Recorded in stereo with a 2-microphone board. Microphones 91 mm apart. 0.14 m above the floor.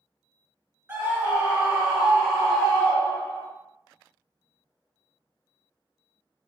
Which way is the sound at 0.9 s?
20° right (ahead or behind).